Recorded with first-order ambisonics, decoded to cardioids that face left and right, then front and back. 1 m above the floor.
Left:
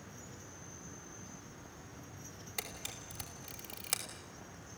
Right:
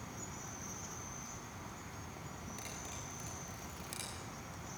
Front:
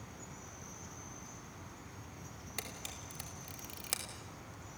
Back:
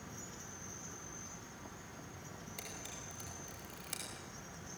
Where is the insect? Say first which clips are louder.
Right 4 dB, back 1 dB; 70° right, 4 m.